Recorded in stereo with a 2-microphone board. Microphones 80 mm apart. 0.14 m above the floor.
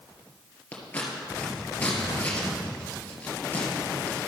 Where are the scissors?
20° left (ahead or behind), 2 m.